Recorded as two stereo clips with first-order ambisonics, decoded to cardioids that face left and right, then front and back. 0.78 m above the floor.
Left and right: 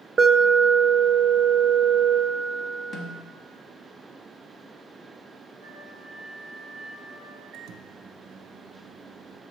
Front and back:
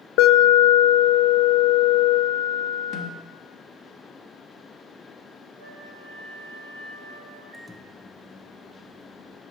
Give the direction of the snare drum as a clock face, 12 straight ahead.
11 o'clock.